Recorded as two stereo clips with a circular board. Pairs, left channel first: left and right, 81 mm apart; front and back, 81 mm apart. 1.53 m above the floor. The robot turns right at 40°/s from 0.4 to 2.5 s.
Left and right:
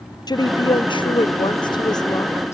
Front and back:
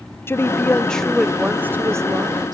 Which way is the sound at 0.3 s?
60° left.